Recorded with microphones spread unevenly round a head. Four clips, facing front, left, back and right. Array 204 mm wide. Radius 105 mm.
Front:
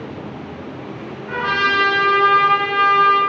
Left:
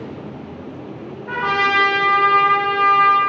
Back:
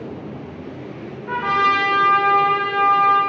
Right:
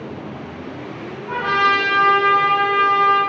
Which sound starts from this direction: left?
A trumpet, at 1.3 s.